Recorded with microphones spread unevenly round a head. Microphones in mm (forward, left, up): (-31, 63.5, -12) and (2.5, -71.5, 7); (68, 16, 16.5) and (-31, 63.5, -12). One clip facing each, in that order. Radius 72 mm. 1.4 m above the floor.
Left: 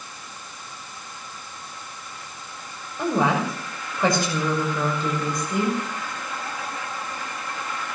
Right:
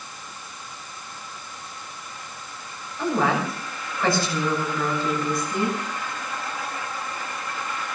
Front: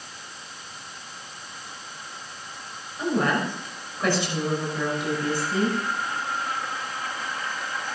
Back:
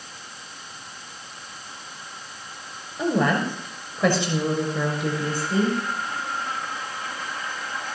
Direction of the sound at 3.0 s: Straight behind.